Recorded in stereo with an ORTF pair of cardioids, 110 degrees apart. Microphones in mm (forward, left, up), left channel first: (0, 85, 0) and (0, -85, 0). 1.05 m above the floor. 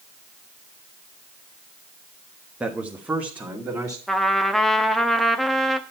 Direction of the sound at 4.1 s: Straight ahead.